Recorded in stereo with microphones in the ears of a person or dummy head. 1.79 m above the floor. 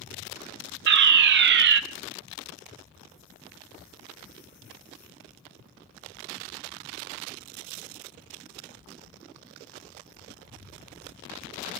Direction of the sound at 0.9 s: 60° right (ahead or behind).